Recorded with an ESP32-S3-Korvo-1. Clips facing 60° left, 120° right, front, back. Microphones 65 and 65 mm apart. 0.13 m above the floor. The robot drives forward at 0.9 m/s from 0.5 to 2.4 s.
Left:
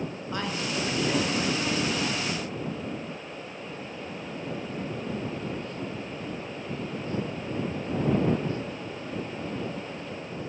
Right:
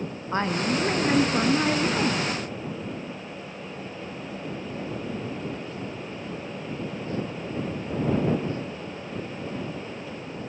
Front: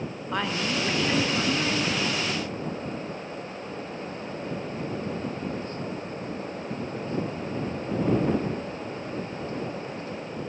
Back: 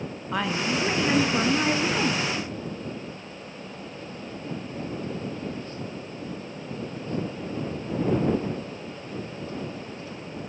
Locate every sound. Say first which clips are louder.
0.3 s a woman speaking: right 7 dB, back 2 dB; 95° right, 1.9 m; by 2.2 s 140° right, 2.5 m